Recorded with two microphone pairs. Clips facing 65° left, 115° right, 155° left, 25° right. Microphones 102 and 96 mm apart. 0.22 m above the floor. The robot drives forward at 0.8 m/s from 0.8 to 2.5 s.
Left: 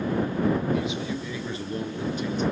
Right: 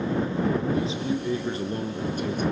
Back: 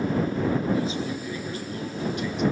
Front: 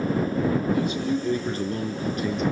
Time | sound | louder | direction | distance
0.7 | a man speaking | right 2 dB, front 3 dB | 55° right | 3.5 m